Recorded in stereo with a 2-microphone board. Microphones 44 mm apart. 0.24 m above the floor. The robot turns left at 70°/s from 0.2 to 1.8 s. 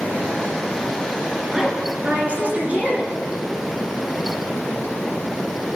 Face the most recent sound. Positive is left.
turn(degrees=-30)  # may be behind; listen again after turning